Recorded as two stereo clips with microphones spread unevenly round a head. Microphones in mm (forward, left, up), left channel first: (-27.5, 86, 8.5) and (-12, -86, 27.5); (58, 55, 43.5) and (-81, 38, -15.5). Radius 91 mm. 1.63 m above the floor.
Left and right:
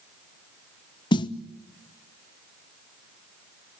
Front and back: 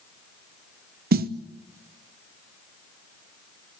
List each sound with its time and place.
1.1 s a snare drum: 160° left, 0.9 m